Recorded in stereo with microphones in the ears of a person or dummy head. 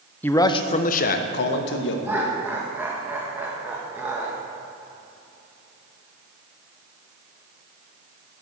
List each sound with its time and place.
0.2 s a man speaking: 10° left (ahead or behind), 0.9 m; by 1.9 s 70° left (ahead or behind), 2.0 m
2.0 s laughter: 10° right (ahead or behind), 1.6 m